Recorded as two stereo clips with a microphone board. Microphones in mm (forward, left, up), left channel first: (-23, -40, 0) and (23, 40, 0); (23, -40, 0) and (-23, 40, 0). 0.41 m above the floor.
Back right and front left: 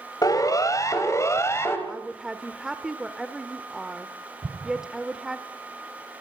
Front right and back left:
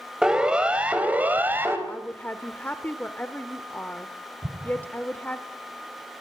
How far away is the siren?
About 3 m.